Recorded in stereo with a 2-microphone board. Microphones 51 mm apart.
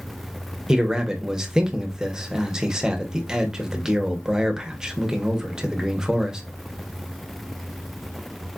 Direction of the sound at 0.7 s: 10° right (ahead or behind).